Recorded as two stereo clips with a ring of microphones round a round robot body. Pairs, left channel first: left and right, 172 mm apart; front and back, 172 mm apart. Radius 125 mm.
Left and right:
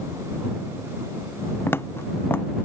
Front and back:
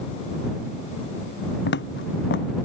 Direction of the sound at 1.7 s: 10° left.